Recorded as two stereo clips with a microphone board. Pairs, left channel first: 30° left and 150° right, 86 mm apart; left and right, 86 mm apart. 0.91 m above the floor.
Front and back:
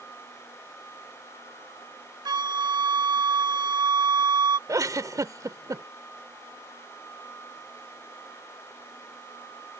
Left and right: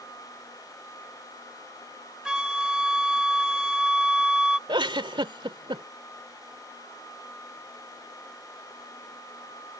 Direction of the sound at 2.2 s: 170° right.